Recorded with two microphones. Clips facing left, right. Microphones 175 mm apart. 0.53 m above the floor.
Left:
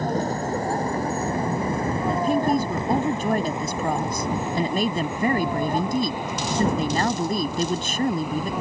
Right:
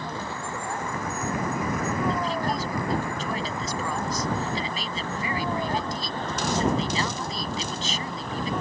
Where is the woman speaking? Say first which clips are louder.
Left 6 dB; 55° left (ahead or behind).